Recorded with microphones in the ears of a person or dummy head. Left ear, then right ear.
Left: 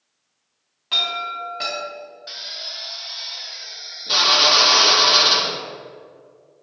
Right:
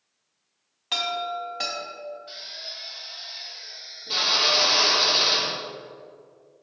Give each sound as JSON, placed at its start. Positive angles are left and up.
{"t": 0.9, "sound": "a chime", "side_deg": -10, "distance_m": 2.5}
{"t": 2.3, "sound": "a drill", "side_deg": 60, "distance_m": 1.3}